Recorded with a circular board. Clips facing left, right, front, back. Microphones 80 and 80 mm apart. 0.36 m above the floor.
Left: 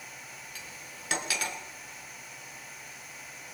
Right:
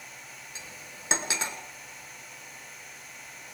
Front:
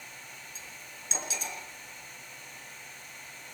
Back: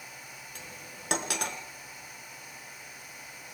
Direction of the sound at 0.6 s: 155° right.